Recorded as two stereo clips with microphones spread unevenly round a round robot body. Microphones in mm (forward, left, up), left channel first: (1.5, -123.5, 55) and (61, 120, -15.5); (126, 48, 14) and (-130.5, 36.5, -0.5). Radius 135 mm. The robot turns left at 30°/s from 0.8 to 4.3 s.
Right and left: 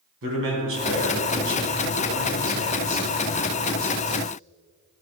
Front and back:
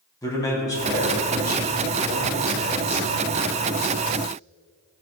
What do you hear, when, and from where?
0.2 s a man speaking: 80° left, 3 m; by 4.2 s 25° right, 3 m